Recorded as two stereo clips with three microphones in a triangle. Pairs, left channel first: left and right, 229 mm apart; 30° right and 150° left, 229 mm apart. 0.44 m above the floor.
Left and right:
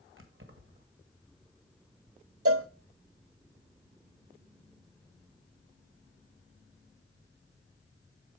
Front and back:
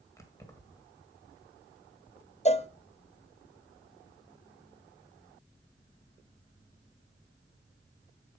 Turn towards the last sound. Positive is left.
turn(degrees=-95)